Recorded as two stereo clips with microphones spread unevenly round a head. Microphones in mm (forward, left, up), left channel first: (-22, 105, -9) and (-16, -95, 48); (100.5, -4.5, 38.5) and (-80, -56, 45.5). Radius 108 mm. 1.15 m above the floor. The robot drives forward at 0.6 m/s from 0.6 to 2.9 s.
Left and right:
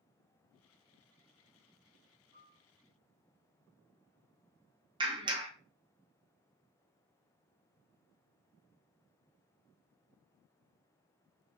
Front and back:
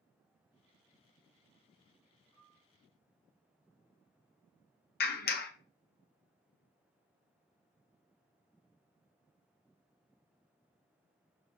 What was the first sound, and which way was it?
A piano, 150° right.